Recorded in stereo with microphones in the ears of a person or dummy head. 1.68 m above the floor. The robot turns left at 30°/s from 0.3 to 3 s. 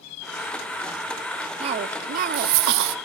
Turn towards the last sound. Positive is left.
turn(degrees=-85)